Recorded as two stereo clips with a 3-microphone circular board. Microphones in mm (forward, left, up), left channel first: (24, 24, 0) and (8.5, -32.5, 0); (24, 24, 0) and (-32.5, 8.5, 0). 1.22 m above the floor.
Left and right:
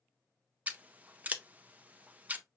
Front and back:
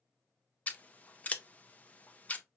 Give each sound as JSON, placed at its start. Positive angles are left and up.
{"t": 0.7, "sound": "scissors", "azimuth_deg": -45, "distance_m": 0.6}